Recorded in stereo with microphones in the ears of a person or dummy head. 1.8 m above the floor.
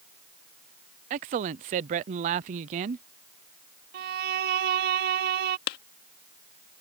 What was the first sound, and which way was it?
A man speaking, 35° right (ahead or behind).